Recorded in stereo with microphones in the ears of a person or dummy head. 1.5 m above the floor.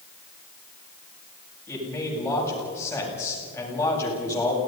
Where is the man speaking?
15° left (ahead or behind), 9 m.